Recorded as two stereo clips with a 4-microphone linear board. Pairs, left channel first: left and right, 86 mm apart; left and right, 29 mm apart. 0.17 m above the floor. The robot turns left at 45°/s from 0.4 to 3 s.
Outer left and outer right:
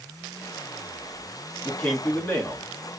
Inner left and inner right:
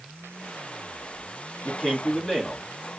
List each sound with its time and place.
1.6 s a man speaking: 10° left (ahead or behind), 1.8 m; by 2.6 s 25° left (ahead or behind), 1.8 m